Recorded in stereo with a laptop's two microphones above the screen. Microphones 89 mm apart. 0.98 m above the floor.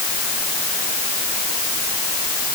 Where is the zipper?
I don't hear a zipper.